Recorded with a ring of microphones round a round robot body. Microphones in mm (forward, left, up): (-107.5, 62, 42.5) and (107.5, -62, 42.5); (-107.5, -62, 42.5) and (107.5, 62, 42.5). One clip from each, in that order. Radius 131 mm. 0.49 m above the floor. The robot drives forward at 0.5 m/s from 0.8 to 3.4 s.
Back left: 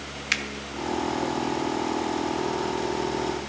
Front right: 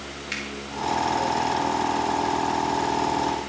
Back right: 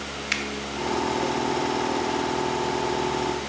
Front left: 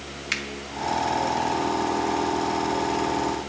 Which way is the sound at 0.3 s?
120° left.